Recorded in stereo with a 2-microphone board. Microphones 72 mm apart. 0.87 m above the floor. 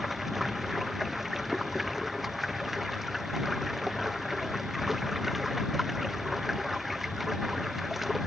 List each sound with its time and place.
0.0 s running water: centre (ahead or behind)